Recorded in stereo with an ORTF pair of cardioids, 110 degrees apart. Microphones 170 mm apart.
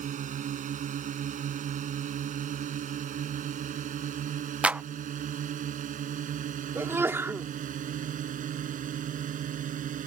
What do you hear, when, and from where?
0.0 s a drone: 50° right
4.6 s a clap: 5° right
6.8 s a sneeze: 15° right